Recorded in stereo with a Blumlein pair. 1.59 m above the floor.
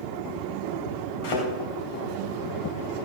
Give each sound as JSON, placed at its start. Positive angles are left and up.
{"t": 1.2, "sound": "a thud", "azimuth_deg": 50, "distance_m": 3.5}